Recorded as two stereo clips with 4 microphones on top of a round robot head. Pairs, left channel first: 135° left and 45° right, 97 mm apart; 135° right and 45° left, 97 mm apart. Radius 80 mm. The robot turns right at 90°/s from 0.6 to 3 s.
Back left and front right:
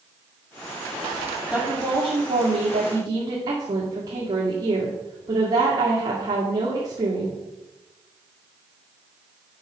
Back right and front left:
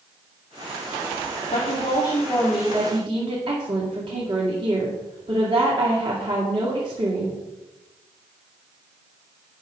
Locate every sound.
1.5 s a woman speaking: 130° right, 2 m; by 7.4 s 5° left, 2 m